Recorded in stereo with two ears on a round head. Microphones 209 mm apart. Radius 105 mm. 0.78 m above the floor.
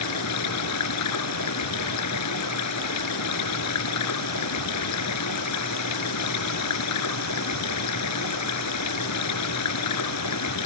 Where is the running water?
85° left.